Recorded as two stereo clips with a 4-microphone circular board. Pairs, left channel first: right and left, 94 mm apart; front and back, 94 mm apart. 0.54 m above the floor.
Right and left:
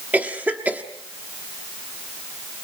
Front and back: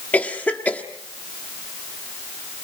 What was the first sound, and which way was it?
A cough, 45° left.